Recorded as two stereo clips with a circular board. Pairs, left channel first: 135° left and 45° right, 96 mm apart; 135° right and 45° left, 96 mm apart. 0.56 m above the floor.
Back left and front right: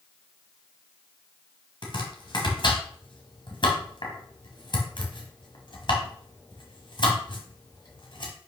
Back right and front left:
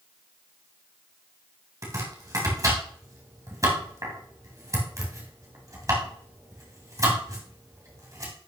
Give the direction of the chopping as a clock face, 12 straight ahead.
9 o'clock.